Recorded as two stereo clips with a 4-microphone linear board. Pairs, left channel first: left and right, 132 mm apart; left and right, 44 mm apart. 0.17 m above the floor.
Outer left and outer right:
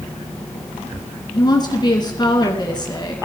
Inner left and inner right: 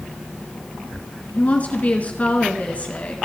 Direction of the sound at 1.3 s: 35° left (ahead or behind).